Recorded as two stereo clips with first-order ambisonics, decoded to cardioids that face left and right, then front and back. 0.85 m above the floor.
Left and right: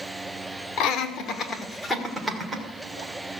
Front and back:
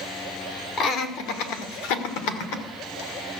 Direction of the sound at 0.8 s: 50° left.